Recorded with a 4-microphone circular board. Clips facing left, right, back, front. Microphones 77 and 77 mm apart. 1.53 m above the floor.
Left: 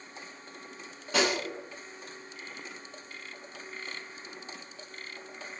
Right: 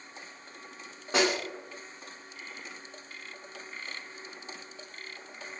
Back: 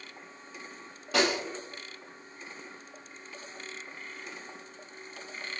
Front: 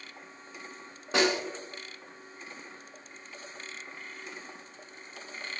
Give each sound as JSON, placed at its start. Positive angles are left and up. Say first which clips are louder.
{"t": 1.1, "sound": "a snare drum", "louder": "right 1 dB, front 1 dB", "azimuth_deg": -55, "distance_m": 1.5}